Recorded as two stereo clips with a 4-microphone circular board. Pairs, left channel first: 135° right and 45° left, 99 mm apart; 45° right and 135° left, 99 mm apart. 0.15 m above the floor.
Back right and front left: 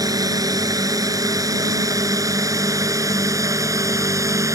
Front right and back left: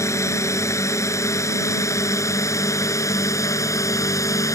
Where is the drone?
5° left; by 4.5 s straight ahead.